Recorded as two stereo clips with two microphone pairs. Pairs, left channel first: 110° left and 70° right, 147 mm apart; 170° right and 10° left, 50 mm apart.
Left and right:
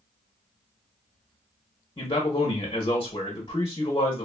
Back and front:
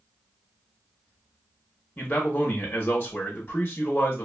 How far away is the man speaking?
About 0.7 m.